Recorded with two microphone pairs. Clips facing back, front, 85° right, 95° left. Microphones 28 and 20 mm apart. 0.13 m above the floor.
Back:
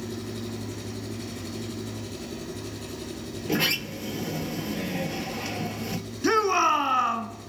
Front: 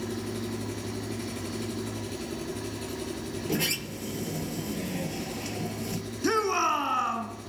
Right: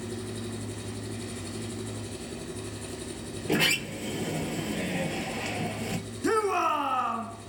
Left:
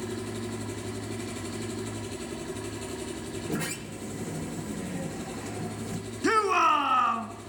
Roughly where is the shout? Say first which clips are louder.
Back 4 dB, left 3 dB; behind left.